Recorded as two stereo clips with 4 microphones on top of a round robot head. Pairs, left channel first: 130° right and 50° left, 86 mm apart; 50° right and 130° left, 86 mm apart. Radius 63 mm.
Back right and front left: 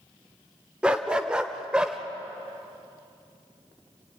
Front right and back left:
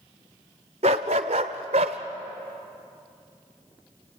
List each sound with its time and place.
0.8 s a dog barking: 130° left, 0.8 m